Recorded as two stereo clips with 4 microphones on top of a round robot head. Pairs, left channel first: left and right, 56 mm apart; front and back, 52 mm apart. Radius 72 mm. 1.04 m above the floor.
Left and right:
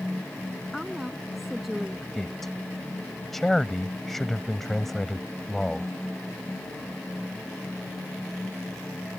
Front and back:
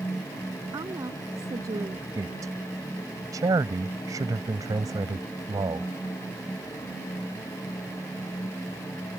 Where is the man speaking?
175° left.